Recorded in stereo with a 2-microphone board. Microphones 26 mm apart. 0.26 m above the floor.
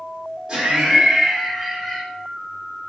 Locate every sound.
0.5 s laughter: 30° right (ahead or behind), 1.3 m; by 2.0 s 15° left (ahead or behind), 1.4 m